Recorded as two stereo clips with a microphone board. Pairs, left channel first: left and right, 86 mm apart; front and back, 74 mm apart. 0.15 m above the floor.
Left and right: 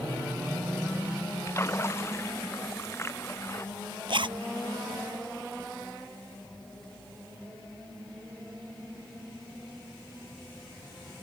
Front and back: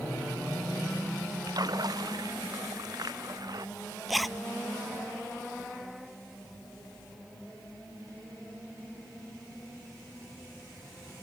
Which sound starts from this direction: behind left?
A splash, at 1.5 s.